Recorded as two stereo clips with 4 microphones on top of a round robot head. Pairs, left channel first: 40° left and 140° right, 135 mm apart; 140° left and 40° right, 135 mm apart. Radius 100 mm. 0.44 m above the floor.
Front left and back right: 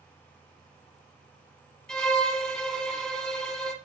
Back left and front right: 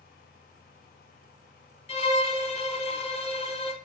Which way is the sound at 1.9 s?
125° left.